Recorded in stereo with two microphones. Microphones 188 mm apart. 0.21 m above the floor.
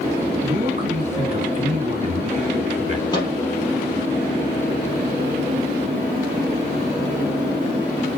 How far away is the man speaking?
About 2 m.